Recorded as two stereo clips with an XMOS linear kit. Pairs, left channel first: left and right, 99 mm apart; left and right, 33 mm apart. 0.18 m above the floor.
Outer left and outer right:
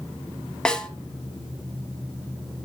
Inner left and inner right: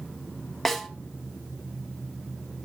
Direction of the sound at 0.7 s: 5° left (ahead or behind).